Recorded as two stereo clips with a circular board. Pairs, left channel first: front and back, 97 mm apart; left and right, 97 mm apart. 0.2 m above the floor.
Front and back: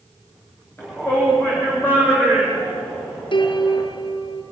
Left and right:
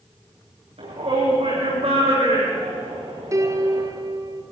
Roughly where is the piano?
Ahead right.